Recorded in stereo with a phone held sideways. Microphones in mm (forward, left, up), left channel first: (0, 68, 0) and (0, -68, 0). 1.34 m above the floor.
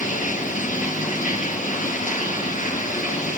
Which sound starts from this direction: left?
Running water, at 0.0 s.